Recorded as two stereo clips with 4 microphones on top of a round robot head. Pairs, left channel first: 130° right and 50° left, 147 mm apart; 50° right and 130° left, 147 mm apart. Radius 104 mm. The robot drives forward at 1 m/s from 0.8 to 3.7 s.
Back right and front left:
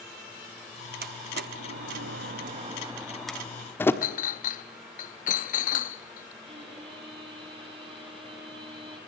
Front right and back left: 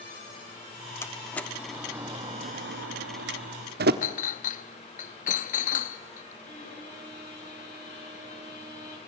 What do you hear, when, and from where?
1.0 s a door slam: 25° left, 1.6 m; by 3.9 s 150° left, 1.4 m
4.0 s a clink: 90° right, 0.7 m
6.4 s a violin: 10° right, 9 m